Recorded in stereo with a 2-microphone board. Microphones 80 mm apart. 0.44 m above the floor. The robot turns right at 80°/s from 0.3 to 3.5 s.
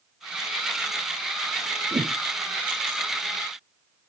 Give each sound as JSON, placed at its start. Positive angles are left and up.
{"t": 1.9, "sound": "a whoosh", "side_deg": -50, "distance_m": 0.5}